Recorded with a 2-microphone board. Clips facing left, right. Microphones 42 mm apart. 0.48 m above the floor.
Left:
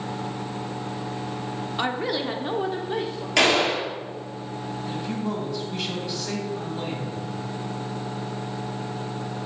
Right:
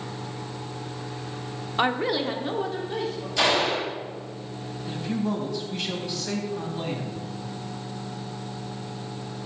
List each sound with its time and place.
1.8 s a woman speaking: 20° right (ahead or behind), 0.8 m; by 3.3 s 35° left (ahead or behind), 1.2 m
3.4 s a gunshot: 75° left (ahead or behind), 3 m
4.9 s a man speaking: centre (ahead or behind), 3 m